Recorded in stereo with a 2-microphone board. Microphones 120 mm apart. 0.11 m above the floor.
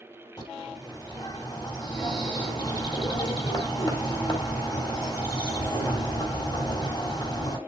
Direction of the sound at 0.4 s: 35° left (ahead or behind).